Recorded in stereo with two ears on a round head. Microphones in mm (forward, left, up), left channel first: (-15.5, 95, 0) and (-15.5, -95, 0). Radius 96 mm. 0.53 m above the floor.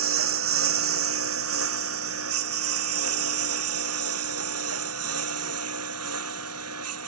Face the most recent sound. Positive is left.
turn(degrees=-85)